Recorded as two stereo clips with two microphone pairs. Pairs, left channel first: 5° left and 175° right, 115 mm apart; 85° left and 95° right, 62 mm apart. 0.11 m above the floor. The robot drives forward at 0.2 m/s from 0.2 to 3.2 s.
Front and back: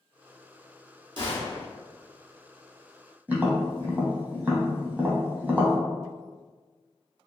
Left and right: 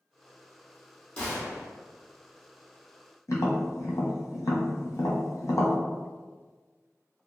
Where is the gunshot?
145° left, 1.6 m.